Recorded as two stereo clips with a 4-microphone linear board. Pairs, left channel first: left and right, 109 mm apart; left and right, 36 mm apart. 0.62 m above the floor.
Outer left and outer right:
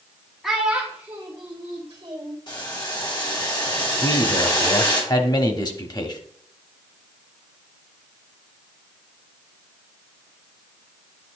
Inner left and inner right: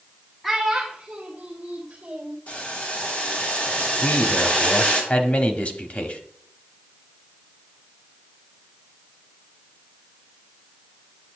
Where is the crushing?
No crushing in this recording.